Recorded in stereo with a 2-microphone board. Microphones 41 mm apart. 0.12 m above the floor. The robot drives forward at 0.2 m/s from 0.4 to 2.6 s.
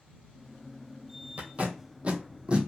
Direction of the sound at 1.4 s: 40° right (ahead or behind).